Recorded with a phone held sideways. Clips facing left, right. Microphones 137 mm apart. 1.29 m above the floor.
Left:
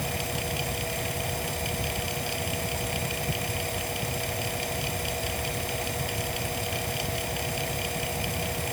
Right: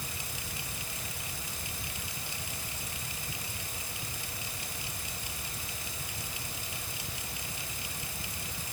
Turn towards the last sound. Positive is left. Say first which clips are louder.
# left 13 dB
turn(degrees=70)  # may be behind; listen again after turning